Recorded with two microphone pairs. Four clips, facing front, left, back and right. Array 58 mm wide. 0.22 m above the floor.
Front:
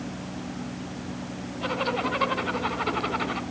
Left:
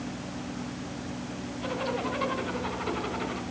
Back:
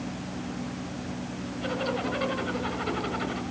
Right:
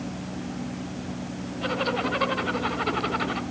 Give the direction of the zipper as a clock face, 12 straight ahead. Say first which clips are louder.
Right 5 dB, front 3 dB; 1 o'clock.